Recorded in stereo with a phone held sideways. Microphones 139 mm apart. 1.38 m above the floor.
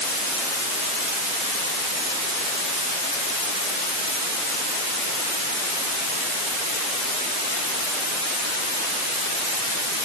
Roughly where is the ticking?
I don't hear ticking.